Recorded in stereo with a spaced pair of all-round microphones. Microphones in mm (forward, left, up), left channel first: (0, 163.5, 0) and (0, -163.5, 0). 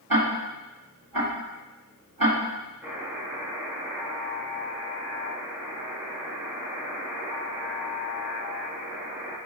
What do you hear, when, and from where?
0.1 s ticking: 80° right, 2.5 m
2.8 s a buzzer: 5° right (ahead or behind), 3.5 m